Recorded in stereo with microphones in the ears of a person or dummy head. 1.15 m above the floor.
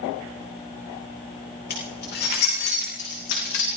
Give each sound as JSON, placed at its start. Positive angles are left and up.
{"t": 1.7, "sound": "keys jangling", "side_deg": 50, "distance_m": 3.0}